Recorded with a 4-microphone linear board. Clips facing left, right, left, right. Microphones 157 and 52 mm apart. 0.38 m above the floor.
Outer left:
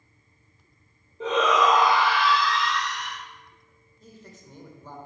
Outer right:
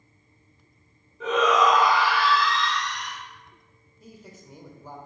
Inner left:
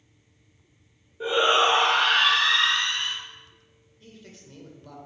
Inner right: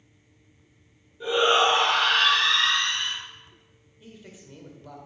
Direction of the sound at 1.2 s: 30° left (ahead or behind).